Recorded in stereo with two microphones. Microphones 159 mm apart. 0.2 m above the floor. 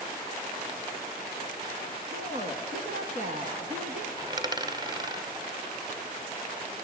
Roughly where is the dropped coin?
Right.